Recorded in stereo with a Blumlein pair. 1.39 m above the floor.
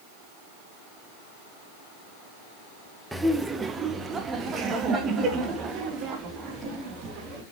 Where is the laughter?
5° right, 0.8 m; by 7.4 s 30° right, 3 m.